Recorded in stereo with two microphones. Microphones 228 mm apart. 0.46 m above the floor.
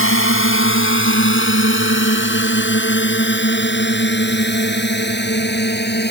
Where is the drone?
65° left (ahead or behind); by 6.1 s 45° left (ahead or behind).